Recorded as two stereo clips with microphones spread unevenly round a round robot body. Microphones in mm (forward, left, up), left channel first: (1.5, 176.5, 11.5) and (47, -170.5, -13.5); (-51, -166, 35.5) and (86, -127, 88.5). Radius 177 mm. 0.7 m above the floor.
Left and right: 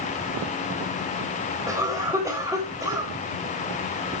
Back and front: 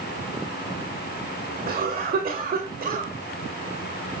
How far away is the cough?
About 4 m.